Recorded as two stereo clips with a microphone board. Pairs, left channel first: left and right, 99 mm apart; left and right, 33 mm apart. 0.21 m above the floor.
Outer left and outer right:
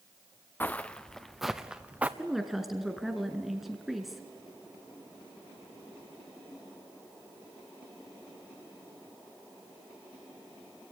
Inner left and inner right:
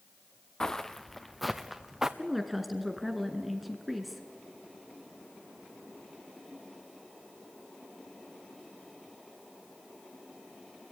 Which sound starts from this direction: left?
Footsteps, at 0.6 s.